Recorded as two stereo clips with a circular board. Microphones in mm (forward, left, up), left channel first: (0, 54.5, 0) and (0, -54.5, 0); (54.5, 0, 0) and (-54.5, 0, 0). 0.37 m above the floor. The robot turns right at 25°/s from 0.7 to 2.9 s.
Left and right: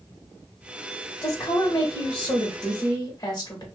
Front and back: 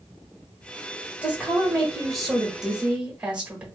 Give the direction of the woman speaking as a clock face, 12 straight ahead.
10 o'clock.